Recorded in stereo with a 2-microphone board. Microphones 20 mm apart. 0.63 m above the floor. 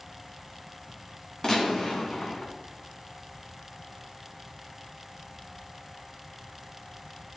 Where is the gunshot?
40° left (ahead or behind), 1.9 m.